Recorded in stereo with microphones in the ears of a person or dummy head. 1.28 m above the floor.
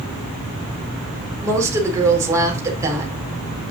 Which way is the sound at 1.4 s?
15° right (ahead or behind).